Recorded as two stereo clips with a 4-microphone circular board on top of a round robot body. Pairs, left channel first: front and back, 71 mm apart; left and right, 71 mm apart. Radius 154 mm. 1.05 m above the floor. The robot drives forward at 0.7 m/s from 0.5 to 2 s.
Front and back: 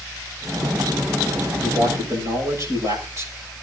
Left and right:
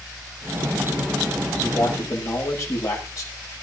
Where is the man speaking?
135° left, 7 m.